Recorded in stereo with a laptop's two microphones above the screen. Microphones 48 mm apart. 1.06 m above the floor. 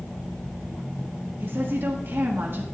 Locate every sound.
1.4 s a woman speaking: 55° right (ahead or behind), 1.5 m